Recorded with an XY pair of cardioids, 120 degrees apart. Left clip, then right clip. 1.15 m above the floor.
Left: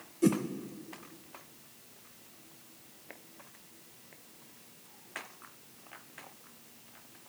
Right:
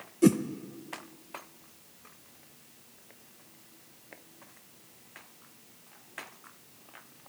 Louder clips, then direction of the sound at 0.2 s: Right 5 dB; 30° right.